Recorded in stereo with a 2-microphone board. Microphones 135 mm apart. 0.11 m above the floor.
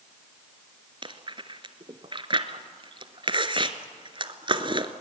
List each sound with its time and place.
1.0 s chewing: 40° right (ahead or behind), 0.9 m